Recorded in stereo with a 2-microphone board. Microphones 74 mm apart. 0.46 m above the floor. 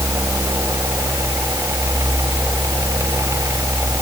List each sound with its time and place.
Only background noise.